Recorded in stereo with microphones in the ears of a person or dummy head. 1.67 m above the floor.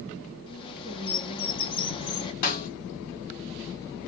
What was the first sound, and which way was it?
A bird, 30° left (ahead or behind).